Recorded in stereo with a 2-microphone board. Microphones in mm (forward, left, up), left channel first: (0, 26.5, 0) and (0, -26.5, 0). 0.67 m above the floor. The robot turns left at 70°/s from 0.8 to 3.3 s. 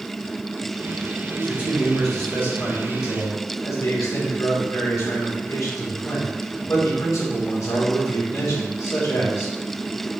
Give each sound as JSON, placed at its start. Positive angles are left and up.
{"t": 1.3, "sound": "a man speaking", "azimuth_deg": -135, "distance_m": 1.6}